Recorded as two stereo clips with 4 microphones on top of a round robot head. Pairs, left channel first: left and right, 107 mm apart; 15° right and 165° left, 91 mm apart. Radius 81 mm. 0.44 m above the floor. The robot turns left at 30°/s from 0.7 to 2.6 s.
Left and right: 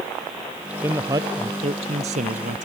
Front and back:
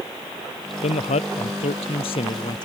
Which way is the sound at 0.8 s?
15° right.